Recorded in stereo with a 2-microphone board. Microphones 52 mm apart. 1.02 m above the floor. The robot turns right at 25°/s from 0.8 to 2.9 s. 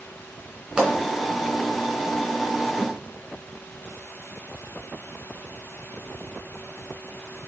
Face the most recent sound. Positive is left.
turn(degrees=25)  # may be behind; listen again after turning